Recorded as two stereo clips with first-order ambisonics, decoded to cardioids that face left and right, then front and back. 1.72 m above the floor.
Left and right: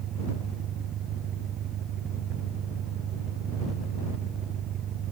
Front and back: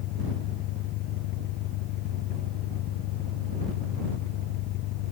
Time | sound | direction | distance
0.0 | an engine running | 35° right | ?